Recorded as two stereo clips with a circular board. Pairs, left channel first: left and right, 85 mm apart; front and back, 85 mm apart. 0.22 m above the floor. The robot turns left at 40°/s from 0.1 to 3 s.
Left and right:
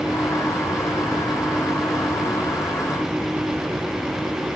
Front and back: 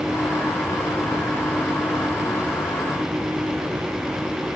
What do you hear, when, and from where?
Only background noise.